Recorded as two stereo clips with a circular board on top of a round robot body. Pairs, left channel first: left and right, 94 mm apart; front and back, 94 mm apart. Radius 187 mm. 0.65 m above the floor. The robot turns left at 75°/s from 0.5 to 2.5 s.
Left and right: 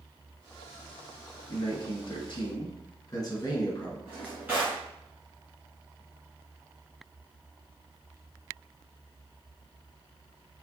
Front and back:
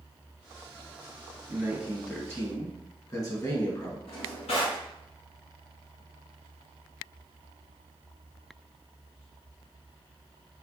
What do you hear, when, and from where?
1.5 s a man speaking: 120° left, 1.3 m; by 4.0 s 45° left, 1.3 m
4.1 s a drawer: 15° right, 1.0 m